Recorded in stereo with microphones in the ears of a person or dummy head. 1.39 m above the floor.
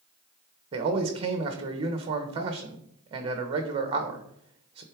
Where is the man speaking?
30° right (ahead or behind), 1.4 m.